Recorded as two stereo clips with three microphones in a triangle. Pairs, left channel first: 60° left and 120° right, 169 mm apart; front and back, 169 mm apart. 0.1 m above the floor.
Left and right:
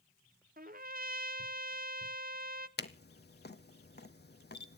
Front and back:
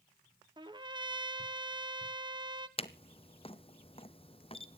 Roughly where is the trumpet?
Behind right.